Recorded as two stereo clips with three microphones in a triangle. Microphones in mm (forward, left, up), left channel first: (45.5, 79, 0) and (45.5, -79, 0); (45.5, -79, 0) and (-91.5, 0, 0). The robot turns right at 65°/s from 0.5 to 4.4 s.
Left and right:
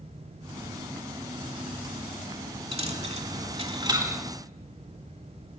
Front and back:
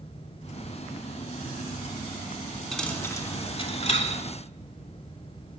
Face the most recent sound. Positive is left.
turn(degrees=-10)